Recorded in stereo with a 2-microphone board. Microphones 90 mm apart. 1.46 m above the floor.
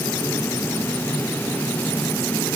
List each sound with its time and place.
Only background noise.